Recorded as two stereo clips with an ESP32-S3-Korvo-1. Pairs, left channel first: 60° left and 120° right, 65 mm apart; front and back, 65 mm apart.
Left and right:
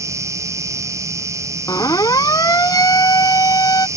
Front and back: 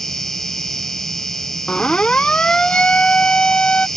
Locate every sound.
0.0 s an insect: 85° right
1.7 s a siren: 75° left